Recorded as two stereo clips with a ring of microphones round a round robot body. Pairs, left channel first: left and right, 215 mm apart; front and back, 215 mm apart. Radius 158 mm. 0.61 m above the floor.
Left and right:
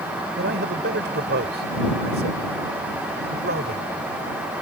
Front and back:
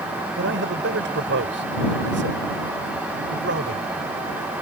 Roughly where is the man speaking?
Behind right.